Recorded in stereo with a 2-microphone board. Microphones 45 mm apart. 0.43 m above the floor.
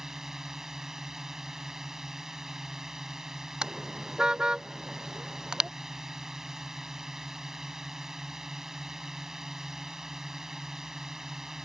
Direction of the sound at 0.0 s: 10° right (ahead or behind).